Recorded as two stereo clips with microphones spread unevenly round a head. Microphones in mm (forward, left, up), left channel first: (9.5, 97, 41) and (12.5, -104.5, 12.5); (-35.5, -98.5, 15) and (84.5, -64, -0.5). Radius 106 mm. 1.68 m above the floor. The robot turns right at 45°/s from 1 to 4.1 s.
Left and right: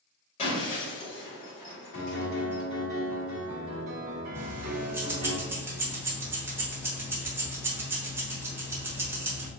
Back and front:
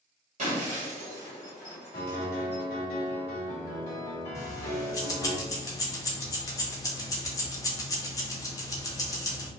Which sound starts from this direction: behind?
Keys jangling, at 4.3 s.